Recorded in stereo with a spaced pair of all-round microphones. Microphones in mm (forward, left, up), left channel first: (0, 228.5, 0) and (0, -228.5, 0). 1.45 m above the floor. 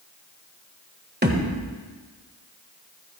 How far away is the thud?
About 1.6 m.